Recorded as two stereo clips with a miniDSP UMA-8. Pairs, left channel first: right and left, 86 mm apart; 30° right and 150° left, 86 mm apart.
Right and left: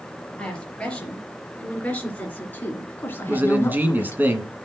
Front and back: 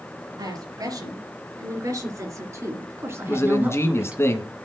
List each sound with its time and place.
0.4 s a woman speaking: 170° right, 4.5 m; by 4.2 s 135° right, 1.8 m
3.3 s a man speaking: 25° left, 1.8 m